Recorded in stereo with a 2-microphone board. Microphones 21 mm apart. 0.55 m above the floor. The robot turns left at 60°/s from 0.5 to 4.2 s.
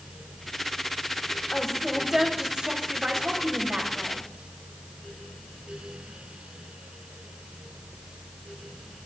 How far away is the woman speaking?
About 2.5 m.